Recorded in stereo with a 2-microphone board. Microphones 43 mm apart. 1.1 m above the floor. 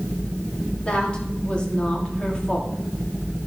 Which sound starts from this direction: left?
A woman speaking, at 0.8 s.